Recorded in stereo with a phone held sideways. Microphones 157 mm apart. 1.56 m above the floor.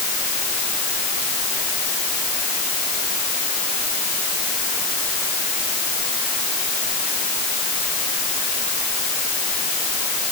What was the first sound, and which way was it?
Only background noise.